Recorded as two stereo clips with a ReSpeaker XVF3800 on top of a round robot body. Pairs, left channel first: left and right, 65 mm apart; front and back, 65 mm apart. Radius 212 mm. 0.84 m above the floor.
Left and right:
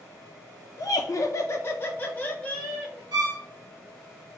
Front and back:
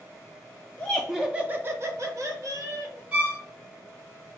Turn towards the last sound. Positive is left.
turn(degrees=-105)